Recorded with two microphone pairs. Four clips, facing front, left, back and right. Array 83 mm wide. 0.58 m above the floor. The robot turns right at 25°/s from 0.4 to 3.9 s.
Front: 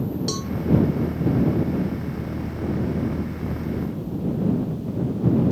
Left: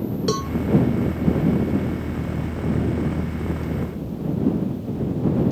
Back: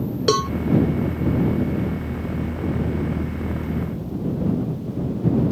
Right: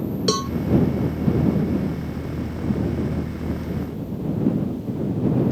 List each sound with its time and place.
0.3 s a cowbell: 165° right; by 0.5 s 160° right